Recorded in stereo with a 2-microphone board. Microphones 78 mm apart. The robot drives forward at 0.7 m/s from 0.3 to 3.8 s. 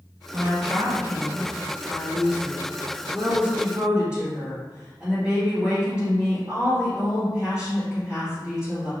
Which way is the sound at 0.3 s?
40° right (ahead or behind).